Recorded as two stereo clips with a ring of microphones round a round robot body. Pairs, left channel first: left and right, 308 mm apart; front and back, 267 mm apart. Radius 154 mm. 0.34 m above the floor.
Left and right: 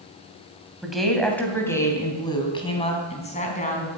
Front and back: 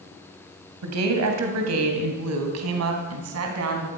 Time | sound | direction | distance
0.8 | a woman speaking | straight behind | 2.5 m